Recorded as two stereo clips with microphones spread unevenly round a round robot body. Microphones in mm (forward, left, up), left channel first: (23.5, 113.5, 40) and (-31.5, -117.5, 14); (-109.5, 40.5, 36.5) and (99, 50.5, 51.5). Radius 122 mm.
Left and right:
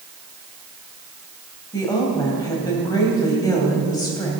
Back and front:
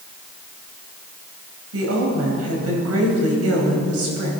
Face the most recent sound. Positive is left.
turn(degrees=0)